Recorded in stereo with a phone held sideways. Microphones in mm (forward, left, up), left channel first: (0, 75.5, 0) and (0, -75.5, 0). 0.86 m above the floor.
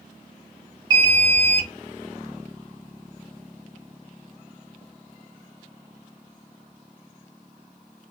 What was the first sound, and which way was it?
An alarm, 30° right (ahead or behind).